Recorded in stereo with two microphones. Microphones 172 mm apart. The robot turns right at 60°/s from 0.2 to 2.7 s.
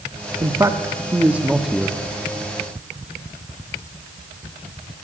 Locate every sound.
0.4 s a man speaking: 20° right (ahead or behind), 0.7 m; by 2.0 s 5° left (ahead or behind), 0.7 m